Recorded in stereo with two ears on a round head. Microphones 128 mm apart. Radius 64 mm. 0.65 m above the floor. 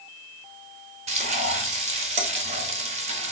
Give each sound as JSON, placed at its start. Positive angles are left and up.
{"t": 1.1, "sound": "frying", "side_deg": -45, "distance_m": 0.7}